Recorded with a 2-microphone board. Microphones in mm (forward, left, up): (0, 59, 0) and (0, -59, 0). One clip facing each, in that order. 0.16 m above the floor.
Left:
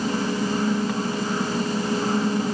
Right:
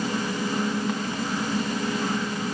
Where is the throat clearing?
No throat clearing in this recording.